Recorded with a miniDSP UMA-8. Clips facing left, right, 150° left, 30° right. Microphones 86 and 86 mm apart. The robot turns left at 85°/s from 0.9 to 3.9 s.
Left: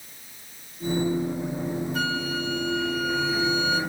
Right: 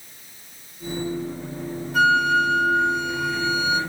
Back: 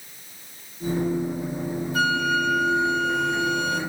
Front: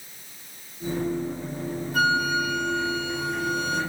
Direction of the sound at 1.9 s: 65° right.